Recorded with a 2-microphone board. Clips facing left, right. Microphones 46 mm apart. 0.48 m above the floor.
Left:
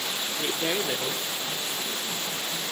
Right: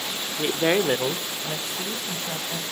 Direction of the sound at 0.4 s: 20° right (ahead or behind).